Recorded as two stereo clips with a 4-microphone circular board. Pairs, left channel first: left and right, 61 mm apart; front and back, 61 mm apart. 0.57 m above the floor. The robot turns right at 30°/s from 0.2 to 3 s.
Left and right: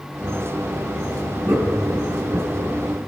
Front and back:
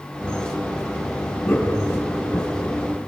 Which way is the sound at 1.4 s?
80° right.